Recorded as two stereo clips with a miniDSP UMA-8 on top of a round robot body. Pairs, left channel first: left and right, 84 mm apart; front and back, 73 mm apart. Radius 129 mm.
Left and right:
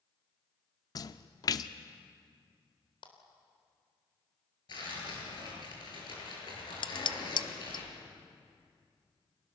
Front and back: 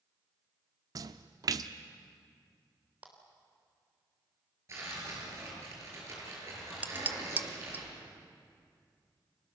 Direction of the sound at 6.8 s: 115° left.